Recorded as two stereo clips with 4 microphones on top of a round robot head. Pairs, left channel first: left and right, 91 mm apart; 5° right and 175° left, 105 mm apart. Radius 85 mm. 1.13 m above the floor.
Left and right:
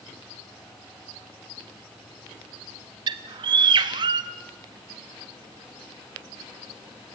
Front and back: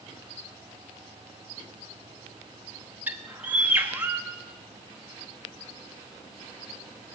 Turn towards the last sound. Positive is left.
turn(degrees=-110)